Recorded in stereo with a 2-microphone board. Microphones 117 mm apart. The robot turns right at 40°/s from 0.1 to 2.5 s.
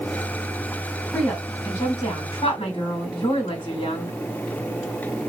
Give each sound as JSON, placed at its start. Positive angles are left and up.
{"t": 1.1, "sound": "a woman speaking", "azimuth_deg": 10, "distance_m": 3.0}